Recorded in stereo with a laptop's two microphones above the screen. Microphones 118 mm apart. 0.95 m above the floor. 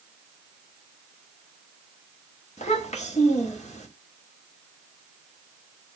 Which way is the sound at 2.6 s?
85° left.